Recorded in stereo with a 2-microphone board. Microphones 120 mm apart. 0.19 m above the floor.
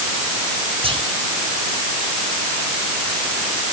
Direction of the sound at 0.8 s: 50° right (ahead or behind).